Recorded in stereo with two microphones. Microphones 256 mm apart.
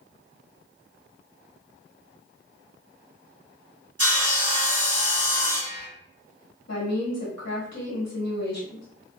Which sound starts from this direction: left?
A woman speaking, at 6.7 s.